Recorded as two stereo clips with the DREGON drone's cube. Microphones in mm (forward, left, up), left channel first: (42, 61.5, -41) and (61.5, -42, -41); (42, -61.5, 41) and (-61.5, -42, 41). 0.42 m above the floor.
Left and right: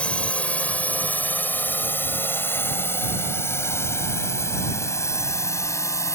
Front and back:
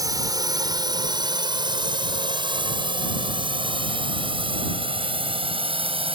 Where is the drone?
170° left; by 6.2 s 160° left.